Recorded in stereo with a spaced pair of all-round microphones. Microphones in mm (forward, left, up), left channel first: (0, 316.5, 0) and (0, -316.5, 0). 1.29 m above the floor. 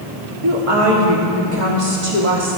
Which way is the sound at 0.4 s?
55° right (ahead or behind).